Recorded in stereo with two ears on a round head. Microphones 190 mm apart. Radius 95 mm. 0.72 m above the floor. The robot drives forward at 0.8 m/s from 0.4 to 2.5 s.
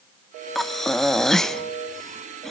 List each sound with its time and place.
0.6 s breathing: centre (ahead or behind), 1.1 m